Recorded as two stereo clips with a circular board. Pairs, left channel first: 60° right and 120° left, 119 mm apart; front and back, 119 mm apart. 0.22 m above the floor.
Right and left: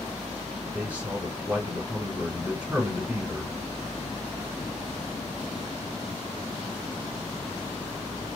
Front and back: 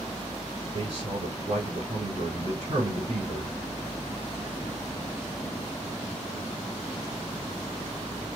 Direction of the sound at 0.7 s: 175° right.